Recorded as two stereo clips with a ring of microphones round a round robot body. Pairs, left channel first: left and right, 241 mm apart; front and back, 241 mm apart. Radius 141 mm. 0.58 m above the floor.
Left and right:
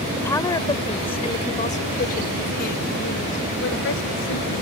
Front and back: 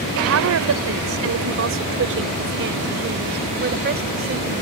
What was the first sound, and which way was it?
A woman speaking, 170° left.